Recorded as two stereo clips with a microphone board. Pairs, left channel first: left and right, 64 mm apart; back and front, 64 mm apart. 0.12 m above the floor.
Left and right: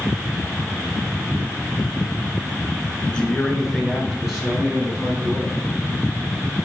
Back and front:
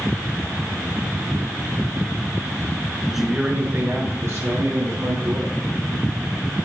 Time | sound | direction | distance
3.1 | a man speaking | 100° left | 1.1 m